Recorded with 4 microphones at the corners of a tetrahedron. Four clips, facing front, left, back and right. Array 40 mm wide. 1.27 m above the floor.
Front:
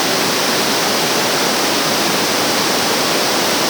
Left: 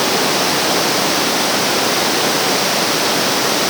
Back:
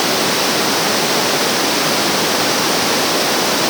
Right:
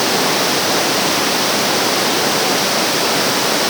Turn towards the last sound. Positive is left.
No sound to turn to.